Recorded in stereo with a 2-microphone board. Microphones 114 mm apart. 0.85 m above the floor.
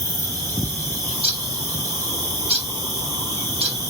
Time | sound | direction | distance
0.0 | an insect | 25° left (ahead or behind) | 2 m
1.0 | a bird | 65° right (ahead or behind) | 1.6 m